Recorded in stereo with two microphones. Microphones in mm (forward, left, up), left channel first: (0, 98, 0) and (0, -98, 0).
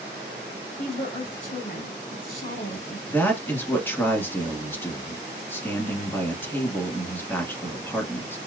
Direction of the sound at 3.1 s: 10° left (ahead or behind).